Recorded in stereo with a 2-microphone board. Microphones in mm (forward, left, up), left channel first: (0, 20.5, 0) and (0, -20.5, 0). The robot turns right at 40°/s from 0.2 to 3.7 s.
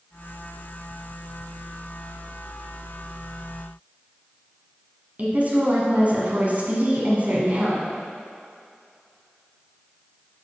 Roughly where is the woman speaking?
Right.